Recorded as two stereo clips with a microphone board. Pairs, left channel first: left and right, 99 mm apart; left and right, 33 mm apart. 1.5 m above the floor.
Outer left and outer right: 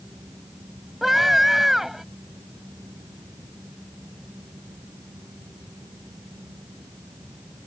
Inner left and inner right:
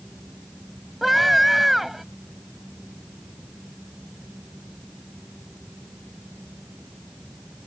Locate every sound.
1.0 s a scream: 5° right (ahead or behind)